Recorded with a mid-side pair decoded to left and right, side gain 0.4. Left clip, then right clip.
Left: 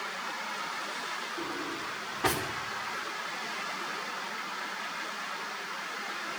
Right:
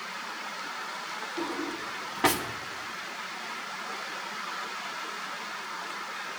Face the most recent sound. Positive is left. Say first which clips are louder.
# right 2 dB
turn(degrees=-65)